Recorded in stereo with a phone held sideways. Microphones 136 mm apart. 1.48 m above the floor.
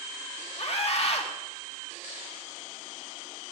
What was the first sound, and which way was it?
A scream, 50° left (ahead or behind).